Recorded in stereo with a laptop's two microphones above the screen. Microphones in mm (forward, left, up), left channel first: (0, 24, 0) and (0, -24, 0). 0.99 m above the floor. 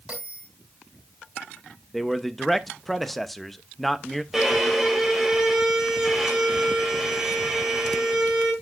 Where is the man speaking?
Centre (ahead or behind), 0.8 m.